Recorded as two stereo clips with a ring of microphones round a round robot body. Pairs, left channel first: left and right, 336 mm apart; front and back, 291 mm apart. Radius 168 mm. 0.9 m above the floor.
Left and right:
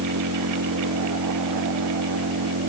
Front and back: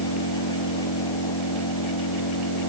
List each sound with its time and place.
0.0 s an engine running: 35° right